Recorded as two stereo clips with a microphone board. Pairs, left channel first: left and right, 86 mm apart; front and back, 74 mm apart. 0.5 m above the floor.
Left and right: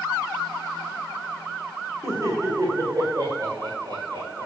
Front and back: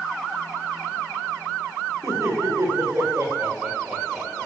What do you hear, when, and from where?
2.0 s laughter: 135° right, 2.5 m; by 4.5 s 100° right, 2.5 m